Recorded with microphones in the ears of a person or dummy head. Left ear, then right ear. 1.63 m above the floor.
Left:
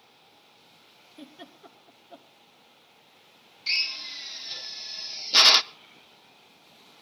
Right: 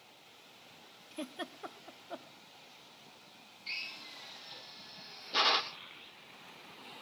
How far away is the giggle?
About 1.0 m.